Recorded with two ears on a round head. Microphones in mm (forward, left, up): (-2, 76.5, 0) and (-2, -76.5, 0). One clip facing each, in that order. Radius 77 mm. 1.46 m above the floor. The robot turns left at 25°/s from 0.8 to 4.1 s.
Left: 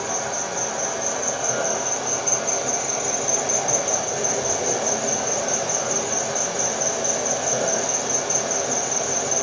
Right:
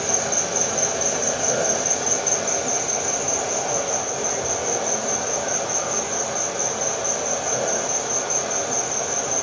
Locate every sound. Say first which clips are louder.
0.0 s an insect: right 2 dB; 130° right, 0.9 m; by 9.4 s 145° left, 0.9 m